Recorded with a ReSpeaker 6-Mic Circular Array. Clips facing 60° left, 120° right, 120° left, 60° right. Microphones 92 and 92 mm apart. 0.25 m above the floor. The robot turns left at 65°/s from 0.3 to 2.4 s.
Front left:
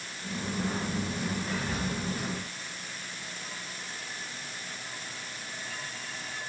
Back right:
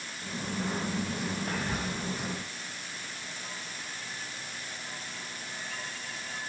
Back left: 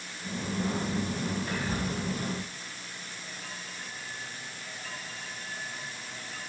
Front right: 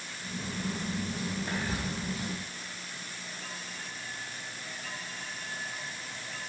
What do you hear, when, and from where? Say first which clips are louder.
1.5 s whispering: even, back left 2 dB; 115° right, 1.5 m; by 1.9 s 140° right, 1.5 m